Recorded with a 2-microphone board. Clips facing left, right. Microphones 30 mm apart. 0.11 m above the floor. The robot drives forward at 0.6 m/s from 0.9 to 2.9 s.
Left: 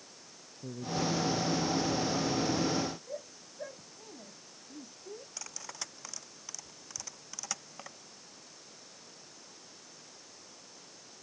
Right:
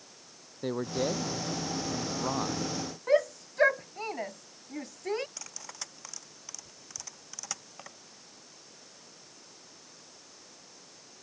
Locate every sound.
0.6 s a man speaking: 65° right (ahead or behind); by 2.8 s 55° right (ahead or behind)
3.1 s a shout: 60° right (ahead or behind)
5.4 s cutlery clinking: centre (ahead or behind)